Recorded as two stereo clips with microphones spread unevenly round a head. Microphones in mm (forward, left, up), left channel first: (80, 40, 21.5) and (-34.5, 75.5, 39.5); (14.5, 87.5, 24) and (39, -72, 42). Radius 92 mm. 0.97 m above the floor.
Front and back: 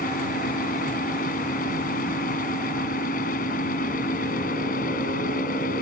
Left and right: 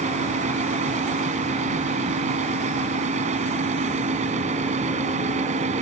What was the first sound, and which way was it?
A fan, 35° right.